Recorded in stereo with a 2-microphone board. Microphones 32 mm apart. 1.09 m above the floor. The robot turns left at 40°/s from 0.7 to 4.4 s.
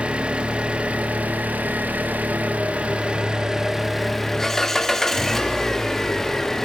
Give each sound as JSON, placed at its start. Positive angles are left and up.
{"t": 0.0, "sound": "an engine running", "azimuth_deg": -45, "distance_m": 2.0}